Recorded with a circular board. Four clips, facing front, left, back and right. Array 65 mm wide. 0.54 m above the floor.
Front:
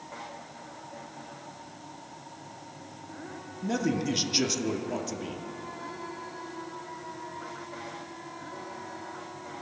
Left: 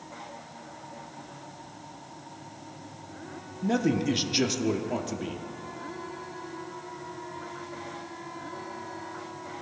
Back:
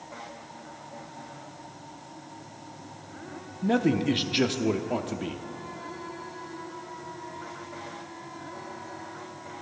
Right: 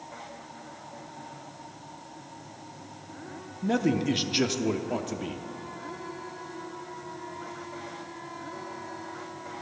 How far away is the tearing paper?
I don't hear tearing paper.